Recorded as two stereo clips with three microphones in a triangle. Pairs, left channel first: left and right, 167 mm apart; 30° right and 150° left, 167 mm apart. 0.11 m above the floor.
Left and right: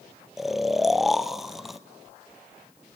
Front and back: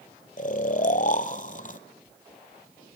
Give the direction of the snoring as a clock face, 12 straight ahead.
12 o'clock.